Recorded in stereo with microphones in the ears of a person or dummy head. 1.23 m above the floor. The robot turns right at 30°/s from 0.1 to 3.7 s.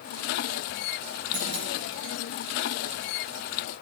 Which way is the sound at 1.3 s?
70° right (ahead or behind).